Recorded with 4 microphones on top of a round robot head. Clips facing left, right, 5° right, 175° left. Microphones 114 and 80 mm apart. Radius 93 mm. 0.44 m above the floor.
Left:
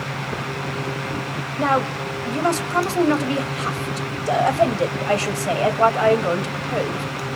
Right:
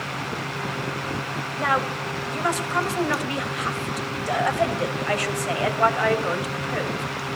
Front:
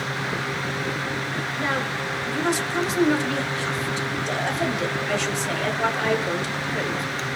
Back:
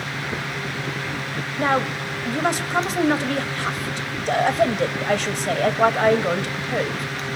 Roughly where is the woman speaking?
Behind left.